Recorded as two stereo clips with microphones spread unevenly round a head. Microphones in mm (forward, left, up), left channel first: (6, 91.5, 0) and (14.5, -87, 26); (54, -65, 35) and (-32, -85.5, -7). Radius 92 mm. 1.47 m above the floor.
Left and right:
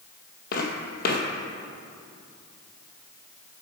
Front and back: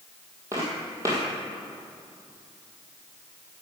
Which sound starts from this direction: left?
Footsteps, at 0.5 s.